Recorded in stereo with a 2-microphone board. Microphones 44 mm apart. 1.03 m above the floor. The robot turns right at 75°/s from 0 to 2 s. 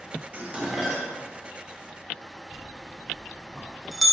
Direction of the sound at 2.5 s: Centre (ahead or behind).